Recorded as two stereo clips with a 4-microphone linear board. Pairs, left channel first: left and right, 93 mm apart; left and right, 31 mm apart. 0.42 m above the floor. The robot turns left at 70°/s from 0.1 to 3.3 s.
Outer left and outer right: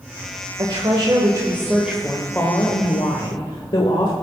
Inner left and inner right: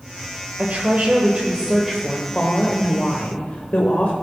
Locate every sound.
0.6 s a woman speaking: 80° right, 1.3 m; by 4.1 s 90° left, 1.3 m